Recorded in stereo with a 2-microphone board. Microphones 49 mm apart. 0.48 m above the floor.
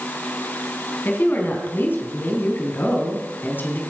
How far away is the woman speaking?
About 4 m.